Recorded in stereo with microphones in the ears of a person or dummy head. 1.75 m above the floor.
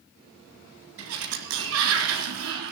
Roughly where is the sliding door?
Right.